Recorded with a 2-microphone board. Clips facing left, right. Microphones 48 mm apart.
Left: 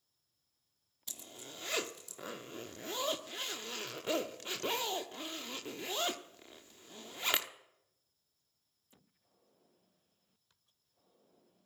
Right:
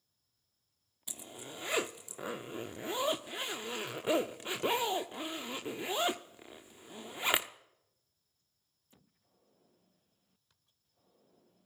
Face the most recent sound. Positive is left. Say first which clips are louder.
# right 4 dB
turn(degrees=-20)  # may be behind; listen again after turning